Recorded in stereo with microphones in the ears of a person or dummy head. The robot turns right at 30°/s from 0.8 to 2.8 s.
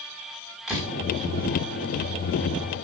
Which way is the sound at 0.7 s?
Centre (ahead or behind).